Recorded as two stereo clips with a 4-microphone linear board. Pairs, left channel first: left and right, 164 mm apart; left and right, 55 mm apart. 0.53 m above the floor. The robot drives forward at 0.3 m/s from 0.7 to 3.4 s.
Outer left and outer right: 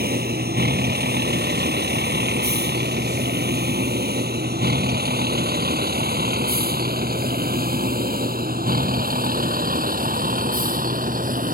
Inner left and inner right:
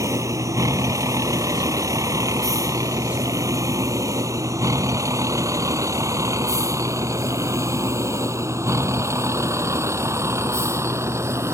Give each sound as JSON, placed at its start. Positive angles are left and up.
{"t": 0.0, "sound": "a vehicle", "side_deg": -75}